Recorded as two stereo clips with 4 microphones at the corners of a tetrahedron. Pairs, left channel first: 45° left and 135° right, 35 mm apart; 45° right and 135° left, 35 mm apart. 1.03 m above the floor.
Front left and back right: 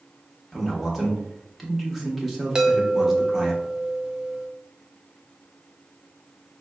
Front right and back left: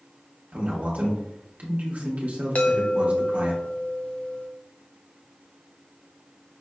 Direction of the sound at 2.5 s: 70° right.